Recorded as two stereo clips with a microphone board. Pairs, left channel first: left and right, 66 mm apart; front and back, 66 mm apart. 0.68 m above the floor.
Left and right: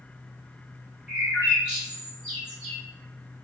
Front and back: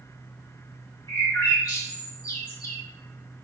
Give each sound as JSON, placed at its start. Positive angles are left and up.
{"t": 1.1, "sound": "a bird", "azimuth_deg": -15, "distance_m": 1.3}